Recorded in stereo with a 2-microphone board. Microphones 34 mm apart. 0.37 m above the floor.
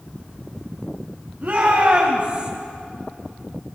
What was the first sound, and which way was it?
A shout, 50° right (ahead or behind).